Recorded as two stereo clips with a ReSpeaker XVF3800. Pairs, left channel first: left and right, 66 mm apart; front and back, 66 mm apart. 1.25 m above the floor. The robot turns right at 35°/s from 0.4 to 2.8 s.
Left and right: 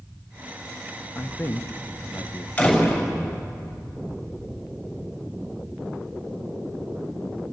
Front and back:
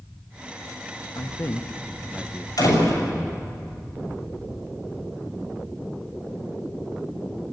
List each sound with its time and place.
1.1 s a man speaking: 35° left, 1.3 m; by 2.5 s 85° left, 1.3 m
2.6 s a door slam: 20° left, 6 m; by 3.1 s 25° left, 6 m